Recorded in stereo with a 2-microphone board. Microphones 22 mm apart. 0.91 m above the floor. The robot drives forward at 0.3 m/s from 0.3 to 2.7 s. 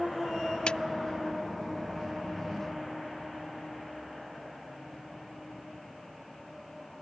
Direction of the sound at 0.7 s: 55° left (ahead or behind).